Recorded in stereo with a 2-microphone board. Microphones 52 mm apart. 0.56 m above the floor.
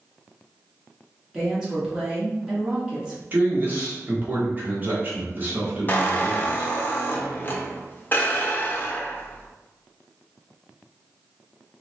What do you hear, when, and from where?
1.3 s a woman speaking: 10° right (ahead or behind), 1.2 m
3.3 s a man speaking: 30° right (ahead or behind), 1.0 m
5.9 s a squeak: 35° left (ahead or behind), 0.6 m